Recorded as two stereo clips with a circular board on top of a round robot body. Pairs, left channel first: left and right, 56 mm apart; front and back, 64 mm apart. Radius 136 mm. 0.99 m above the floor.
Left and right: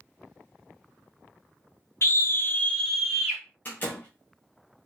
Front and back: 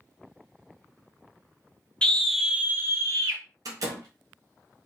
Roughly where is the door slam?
Behind left.